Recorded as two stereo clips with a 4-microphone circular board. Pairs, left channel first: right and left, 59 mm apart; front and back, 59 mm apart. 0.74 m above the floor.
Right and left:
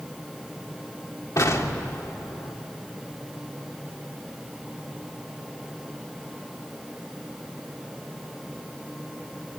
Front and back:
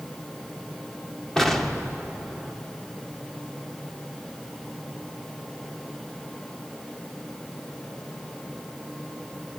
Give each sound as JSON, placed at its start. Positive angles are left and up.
{"t": 1.4, "sound": "an explosion", "azimuth_deg": -85, "distance_m": 2.0}